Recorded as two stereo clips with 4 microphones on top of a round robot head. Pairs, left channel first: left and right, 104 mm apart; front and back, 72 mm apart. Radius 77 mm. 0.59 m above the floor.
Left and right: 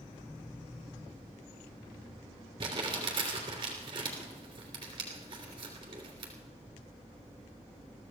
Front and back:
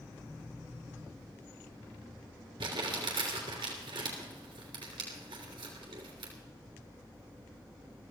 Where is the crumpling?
145° right, 3 m.